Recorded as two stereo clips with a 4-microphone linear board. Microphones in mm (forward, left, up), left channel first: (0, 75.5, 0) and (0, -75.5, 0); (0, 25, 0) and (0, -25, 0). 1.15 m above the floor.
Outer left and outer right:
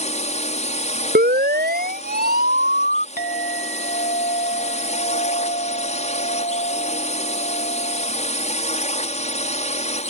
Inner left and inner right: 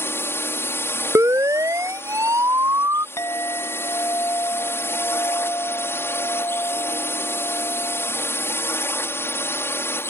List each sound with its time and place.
0.0 s a drone: 50° left (ahead or behind)
1.1 s a siren: 85° right; by 3.1 s 80° right
3.2 s a clink: 90° left